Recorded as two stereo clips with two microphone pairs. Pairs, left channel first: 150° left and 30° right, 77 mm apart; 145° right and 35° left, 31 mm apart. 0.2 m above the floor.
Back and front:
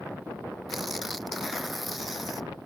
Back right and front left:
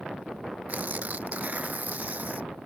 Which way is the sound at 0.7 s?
60° left.